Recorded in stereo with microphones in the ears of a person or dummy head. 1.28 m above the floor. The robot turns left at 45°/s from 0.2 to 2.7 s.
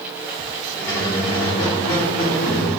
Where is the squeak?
175° left, 1.2 m; by 2.7 s 90° left, 1.2 m.